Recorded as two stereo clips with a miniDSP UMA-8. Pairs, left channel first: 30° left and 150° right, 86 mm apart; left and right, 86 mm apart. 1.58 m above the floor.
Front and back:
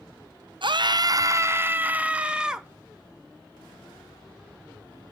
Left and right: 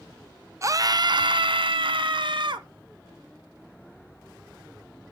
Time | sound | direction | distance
0.6 | a scream | 140° right | 0.8 m